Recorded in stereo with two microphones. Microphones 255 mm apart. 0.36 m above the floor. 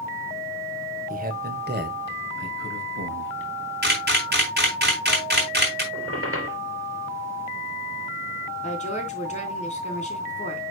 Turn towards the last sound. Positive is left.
turn(degrees=25)  # may be behind; listen again after turning